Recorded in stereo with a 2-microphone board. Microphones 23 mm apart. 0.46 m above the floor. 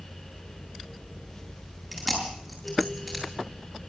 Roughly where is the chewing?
Centre.